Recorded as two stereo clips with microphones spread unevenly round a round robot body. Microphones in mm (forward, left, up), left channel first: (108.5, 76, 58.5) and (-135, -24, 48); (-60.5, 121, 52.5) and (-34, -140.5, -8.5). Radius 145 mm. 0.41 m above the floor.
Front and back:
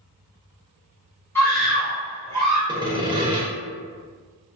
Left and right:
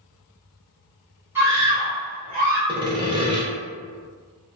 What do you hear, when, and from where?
1.4 s a scream: 50° right, 1.3 m; by 2.6 s 105° right, 1.9 m
2.7 s sawing: 105° right, 0.7 m